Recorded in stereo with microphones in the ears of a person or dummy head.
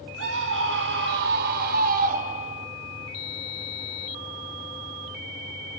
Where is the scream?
70° right (ahead or behind), 3 m; by 2.7 s 35° right (ahead or behind), 2.5 m.